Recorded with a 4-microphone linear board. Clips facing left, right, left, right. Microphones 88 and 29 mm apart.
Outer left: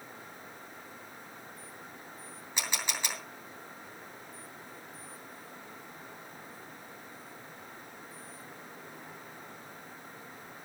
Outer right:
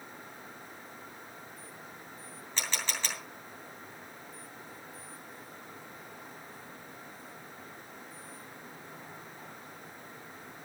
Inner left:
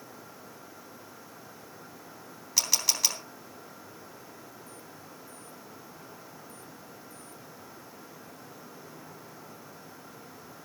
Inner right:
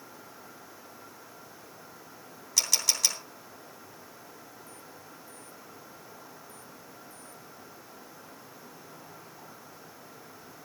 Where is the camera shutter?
15° left (ahead or behind), 3 m.